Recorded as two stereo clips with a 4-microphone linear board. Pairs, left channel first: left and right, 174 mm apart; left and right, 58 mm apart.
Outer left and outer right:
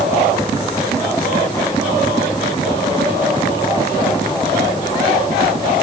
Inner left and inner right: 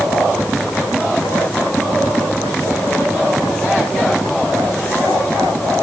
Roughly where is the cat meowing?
No cat meowing in this recording.